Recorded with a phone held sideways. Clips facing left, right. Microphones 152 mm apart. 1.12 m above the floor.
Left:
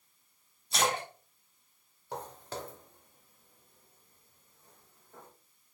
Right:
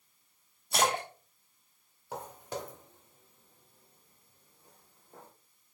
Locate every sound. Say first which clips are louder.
0.7 s a splash: right 2 dB; 55° right (ahead or behind), 2.5 m
2.1 s footsteps: right 1 dB; 5° right (ahead or behind), 1.1 m; by 5.3 s 30° right (ahead or behind), 3 m